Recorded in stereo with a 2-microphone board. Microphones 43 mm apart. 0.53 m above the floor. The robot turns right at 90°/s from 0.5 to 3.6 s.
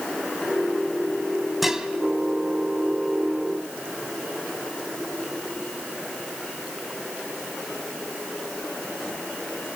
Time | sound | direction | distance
1.6 | dishes clattering | centre (ahead or behind) | 2.5 m